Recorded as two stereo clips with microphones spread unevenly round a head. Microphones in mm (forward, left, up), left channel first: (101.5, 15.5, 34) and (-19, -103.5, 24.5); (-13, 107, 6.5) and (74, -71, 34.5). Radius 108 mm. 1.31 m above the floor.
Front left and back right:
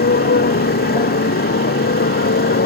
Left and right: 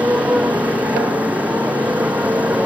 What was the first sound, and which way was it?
A motorcycle, 20° left.